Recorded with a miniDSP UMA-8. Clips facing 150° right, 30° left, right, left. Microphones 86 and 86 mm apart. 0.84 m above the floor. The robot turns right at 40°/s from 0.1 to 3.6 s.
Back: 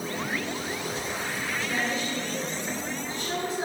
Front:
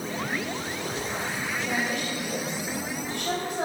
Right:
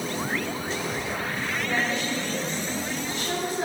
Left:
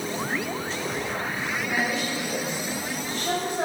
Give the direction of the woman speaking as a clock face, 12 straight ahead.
12 o'clock.